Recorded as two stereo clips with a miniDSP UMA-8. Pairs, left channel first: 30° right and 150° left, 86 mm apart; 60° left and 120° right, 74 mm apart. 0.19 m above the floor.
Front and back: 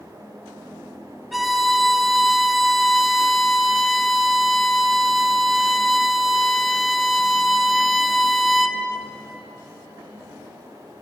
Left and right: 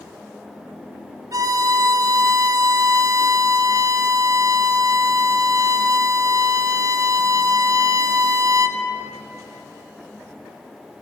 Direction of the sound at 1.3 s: 120° right.